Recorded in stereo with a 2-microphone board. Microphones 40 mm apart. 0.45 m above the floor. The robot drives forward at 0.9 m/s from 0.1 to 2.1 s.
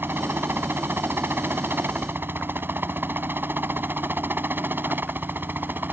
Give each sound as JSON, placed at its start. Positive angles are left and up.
{"t": 0.0, "sound": "a helicopter", "side_deg": -65}